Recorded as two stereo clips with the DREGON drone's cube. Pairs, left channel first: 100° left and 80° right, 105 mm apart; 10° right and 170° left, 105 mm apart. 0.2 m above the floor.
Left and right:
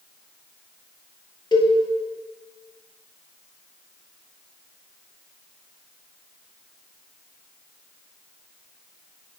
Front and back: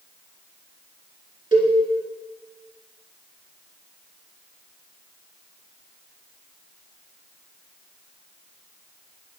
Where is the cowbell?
145° left, 1.4 m.